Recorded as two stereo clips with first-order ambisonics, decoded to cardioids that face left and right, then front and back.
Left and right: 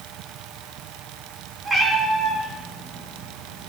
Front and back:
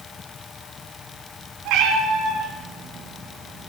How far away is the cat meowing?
About 2.5 m.